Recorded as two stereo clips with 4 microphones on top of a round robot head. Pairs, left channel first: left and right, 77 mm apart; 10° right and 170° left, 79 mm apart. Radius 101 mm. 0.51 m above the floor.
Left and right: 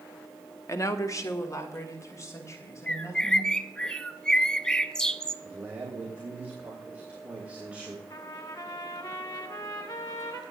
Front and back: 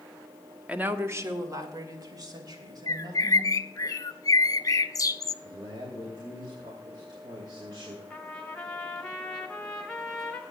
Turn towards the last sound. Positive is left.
turn(degrees=65)